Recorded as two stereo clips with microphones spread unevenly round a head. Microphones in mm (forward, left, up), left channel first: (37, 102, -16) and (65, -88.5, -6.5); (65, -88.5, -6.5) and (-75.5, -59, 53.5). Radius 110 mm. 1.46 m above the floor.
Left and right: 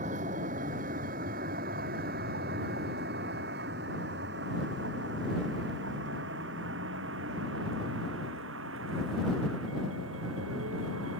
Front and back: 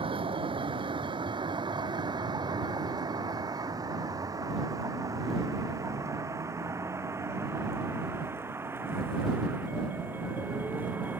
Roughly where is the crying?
No crying in this recording.